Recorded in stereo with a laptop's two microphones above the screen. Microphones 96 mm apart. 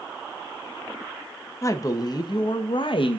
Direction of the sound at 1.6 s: 35° left (ahead or behind).